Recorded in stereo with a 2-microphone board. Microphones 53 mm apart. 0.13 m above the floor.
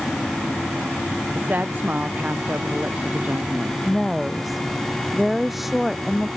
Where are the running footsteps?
No running footsteps in this recording.